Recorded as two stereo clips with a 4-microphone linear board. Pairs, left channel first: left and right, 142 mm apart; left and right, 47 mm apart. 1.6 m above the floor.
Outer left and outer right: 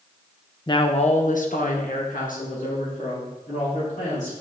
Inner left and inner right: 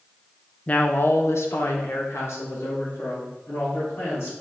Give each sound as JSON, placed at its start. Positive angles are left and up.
{"t": 0.7, "sound": "a woman speaking", "side_deg": 30, "distance_m": 0.7}